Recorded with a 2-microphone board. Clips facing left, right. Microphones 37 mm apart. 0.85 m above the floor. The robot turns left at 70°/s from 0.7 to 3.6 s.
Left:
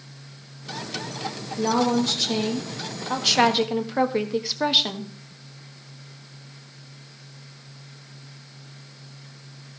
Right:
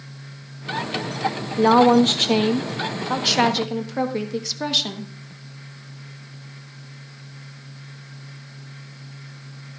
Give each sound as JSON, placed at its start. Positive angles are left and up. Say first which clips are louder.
{"t": 1.6, "sound": "a woman speaking", "louder": "right 8 dB", "azimuth_deg": -55, "distance_m": 1.3}